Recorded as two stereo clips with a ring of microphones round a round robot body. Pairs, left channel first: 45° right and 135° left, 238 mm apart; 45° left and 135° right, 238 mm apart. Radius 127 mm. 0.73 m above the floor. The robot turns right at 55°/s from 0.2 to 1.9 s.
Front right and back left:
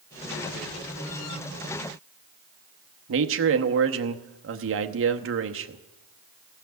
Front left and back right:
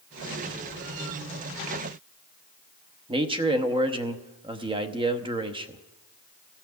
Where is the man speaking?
155° left, 0.9 m.